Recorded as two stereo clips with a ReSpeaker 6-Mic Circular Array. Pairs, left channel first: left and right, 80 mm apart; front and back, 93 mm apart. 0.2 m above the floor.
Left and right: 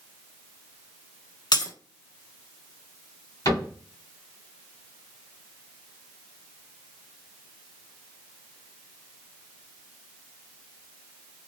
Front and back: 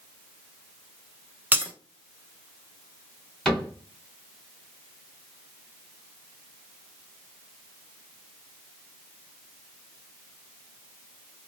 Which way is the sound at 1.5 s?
115° left.